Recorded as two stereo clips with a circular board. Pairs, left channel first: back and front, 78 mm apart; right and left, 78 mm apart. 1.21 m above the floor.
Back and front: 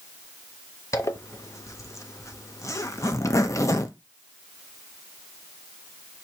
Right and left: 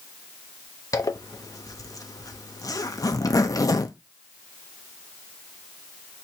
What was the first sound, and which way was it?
A zipper, 130° right.